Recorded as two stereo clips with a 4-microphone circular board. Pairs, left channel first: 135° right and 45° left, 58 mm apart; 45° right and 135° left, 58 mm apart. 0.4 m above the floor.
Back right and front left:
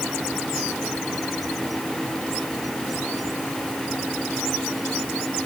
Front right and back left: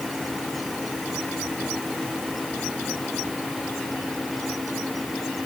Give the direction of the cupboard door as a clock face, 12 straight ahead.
No cupboard door in this recording.